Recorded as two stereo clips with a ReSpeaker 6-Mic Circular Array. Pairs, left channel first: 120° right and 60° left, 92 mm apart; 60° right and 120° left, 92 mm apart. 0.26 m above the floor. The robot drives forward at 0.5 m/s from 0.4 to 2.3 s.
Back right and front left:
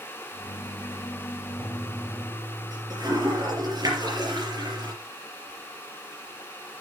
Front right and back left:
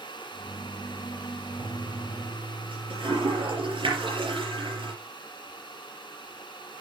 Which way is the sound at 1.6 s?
100° left.